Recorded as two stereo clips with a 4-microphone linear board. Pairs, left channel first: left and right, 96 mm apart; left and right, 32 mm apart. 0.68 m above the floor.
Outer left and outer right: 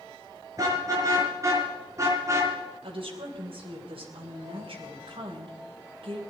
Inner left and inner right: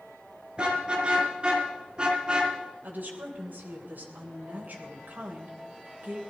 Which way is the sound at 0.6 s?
35° right (ahead or behind).